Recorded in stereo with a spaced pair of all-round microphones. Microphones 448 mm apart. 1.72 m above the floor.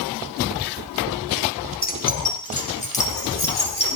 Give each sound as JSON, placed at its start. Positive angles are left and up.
{"t": 1.8, "sound": "keys jangling", "side_deg": 20, "distance_m": 0.9}